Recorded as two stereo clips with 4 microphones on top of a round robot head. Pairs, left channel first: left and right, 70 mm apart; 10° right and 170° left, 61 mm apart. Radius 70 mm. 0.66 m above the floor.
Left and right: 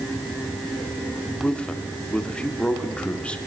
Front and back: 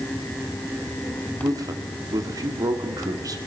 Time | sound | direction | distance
1.4 | a man speaking | 165° left | 2 m